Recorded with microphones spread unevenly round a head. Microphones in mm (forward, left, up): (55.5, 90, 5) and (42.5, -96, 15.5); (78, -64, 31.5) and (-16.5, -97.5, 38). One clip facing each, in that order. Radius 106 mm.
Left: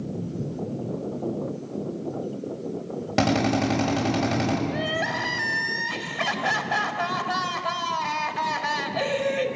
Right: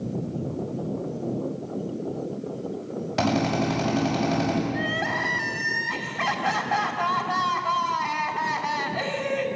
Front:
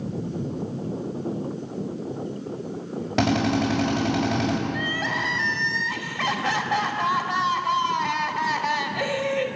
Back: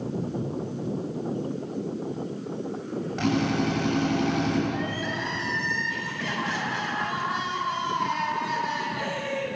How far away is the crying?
About 2.5 m.